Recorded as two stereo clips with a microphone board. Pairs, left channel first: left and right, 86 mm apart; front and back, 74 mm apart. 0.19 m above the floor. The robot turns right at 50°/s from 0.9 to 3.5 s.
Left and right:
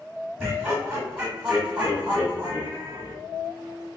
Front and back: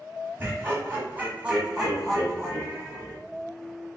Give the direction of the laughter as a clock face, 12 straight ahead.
6 o'clock.